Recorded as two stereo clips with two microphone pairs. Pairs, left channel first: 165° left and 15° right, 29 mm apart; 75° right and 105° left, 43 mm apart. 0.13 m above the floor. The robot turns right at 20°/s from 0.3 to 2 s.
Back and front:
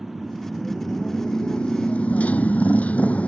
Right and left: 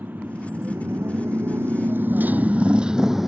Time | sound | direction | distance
0.0 | a motorcycle | 65° left | ?